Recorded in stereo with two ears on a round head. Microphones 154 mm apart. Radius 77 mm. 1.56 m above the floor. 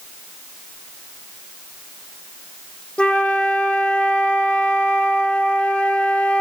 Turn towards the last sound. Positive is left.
turn(degrees=5)  # may be behind; listen again after turning